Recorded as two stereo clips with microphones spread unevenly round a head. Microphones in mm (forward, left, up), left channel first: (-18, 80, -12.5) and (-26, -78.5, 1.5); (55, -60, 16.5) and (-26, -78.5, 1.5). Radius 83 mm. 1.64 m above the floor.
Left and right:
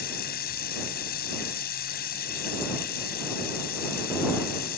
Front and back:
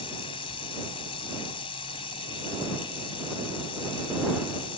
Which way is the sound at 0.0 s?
50° left.